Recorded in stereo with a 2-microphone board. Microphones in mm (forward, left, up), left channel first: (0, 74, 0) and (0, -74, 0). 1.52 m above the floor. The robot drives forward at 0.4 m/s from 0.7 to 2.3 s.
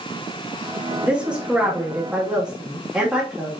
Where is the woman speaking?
5° right (ahead or behind), 2 m.